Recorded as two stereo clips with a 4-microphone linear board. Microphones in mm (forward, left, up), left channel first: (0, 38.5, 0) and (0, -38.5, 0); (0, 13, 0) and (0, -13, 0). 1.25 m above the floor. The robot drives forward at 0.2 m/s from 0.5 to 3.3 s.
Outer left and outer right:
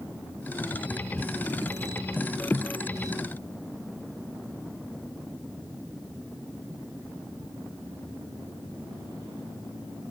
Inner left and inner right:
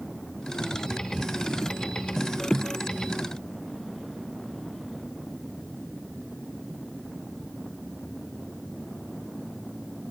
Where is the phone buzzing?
I don't hear a phone buzzing.